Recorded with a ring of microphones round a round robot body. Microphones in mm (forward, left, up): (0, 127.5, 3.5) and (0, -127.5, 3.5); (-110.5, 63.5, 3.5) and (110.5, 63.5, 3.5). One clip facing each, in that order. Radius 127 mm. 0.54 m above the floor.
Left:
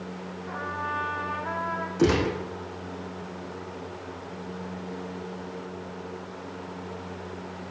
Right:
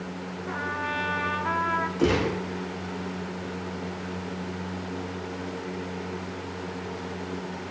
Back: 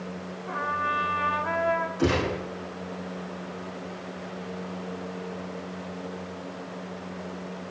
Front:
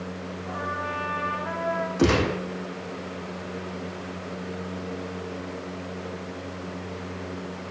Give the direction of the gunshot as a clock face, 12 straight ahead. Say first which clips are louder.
Left 1 dB, front 4 dB; 11 o'clock.